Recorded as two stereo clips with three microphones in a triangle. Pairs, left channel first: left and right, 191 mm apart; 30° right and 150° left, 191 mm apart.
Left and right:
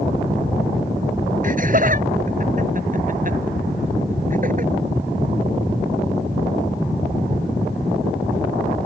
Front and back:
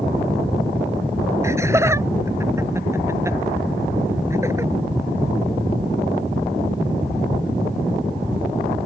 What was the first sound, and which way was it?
Laughter, 135° right.